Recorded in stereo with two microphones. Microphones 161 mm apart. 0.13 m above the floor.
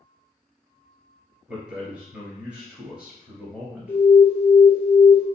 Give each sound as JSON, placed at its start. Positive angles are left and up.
{"t": 1.5, "sound": "a man speaking", "side_deg": -15, "distance_m": 1.8}
{"t": 3.9, "sound": "an alarm", "side_deg": 15, "distance_m": 1.3}